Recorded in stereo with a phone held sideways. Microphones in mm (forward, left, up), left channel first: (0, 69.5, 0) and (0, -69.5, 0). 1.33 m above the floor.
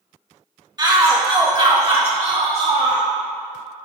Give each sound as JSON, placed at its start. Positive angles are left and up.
{"t": 0.8, "sound": "a shout", "side_deg": -30, "distance_m": 1.6}